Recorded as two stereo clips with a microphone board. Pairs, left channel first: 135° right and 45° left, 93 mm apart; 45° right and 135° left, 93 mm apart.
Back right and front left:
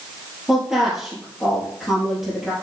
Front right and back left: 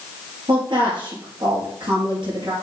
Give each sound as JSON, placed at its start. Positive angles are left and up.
{"t": 0.5, "sound": "a woman speaking", "azimuth_deg": 130, "distance_m": 3.0}